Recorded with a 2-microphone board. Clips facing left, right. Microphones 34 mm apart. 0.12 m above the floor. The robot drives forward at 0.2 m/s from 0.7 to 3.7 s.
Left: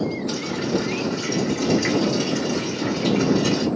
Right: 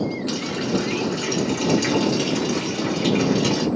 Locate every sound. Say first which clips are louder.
0.3 s a running tap: even; 70° right (ahead or behind), 2 m